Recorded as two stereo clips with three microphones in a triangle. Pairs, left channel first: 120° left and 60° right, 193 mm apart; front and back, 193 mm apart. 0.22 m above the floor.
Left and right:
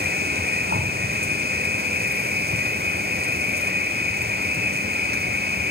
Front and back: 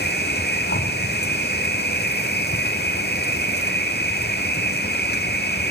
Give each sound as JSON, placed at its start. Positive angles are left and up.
{"t": 0.0, "sound": "an insect", "azimuth_deg": -30, "distance_m": 1.2}